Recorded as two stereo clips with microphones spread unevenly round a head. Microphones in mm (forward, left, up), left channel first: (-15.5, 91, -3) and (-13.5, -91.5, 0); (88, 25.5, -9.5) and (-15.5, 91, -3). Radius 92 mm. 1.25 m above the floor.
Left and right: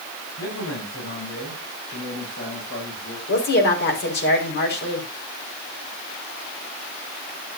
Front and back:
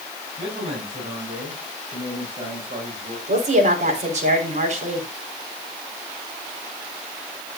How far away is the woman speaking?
About 5 m.